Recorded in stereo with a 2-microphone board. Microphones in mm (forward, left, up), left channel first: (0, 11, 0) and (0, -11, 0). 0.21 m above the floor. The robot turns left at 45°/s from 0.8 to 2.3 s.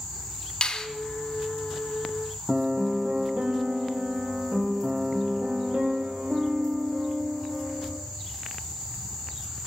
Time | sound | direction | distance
0.6 | a finger snap | 35° left (ahead or behind) | 1.1 m
2.5 | a piano | 50° right (ahead or behind) | 1.4 m